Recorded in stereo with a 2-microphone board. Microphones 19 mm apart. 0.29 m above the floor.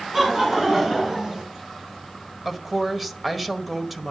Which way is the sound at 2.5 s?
5° right (ahead or behind).